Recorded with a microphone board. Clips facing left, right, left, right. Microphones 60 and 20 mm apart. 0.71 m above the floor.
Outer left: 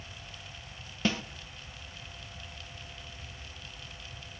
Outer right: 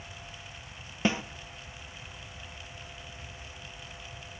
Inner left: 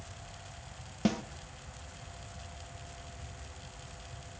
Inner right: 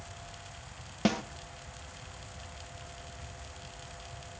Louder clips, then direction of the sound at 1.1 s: Outer right 2 dB, inner right 2 dB; 20° right (ahead or behind).